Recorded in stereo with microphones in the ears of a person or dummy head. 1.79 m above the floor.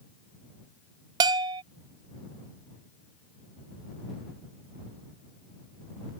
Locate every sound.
1.2 s a bell: 20° right (ahead or behind)